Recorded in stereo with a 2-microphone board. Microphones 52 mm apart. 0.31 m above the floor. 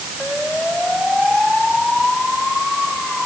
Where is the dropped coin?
I don't hear a dropped coin.